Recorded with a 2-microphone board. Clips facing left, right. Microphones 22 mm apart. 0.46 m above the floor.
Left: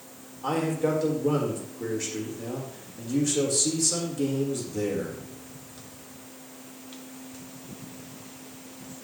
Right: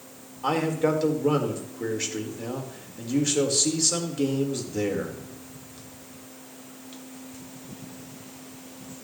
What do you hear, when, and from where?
0.4 s a man speaking: 35° right (ahead or behind), 1.6 m